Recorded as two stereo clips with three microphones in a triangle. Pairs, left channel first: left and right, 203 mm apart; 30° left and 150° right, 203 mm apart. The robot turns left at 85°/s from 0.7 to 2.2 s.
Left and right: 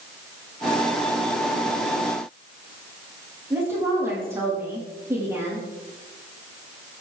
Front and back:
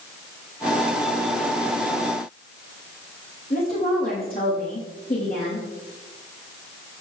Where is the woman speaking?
10° right, 9.5 m.